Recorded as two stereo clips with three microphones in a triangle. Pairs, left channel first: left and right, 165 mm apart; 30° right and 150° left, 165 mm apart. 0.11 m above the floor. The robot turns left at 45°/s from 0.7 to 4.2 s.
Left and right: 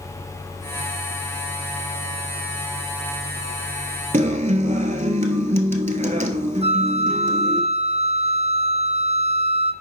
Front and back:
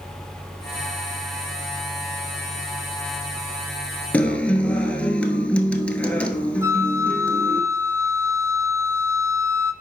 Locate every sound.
4.1 s a guitar: 110° right, 0.8 m
6.6 s a flute: 135° right, 0.7 m